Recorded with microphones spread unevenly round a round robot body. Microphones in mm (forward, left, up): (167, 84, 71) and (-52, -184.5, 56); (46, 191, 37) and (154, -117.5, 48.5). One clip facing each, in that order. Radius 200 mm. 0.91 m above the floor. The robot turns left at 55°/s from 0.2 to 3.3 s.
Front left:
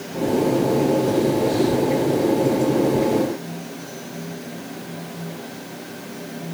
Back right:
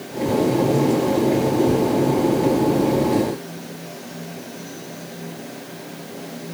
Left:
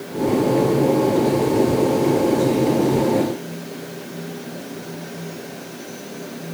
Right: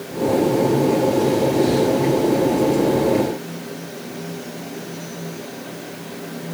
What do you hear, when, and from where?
Only background noise.